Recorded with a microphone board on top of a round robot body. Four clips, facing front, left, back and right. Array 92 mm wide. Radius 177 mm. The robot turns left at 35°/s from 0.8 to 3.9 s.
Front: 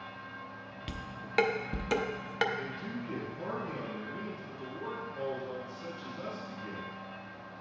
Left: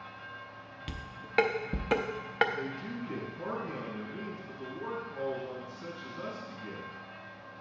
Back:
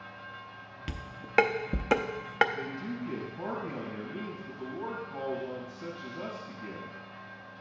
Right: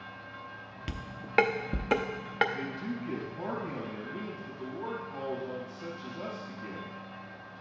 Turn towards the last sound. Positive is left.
turn(degrees=-140)